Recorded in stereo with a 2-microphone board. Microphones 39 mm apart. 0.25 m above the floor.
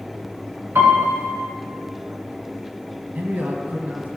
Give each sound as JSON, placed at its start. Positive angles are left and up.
{"t": 0.8, "sound": "a piano", "side_deg": -70, "distance_m": 1.7}
{"t": 3.1, "sound": "a man speaking", "side_deg": -50, "distance_m": 1.6}